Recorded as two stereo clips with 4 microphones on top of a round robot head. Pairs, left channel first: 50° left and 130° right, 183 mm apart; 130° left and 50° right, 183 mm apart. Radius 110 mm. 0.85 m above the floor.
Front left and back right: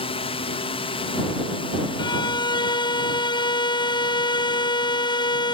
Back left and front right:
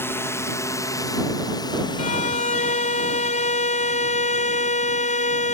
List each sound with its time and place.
0.0 s a drone: 65° left; by 5.5 s 105° left
2.0 s a violin: 105° left